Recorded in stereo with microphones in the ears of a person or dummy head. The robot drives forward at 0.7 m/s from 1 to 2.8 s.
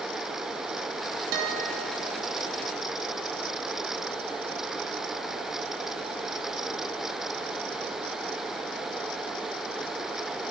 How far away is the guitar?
About 1.6 m.